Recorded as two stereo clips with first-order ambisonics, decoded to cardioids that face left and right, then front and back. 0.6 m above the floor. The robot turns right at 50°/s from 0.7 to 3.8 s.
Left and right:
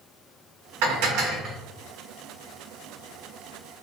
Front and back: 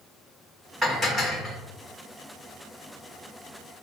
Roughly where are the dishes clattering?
Right.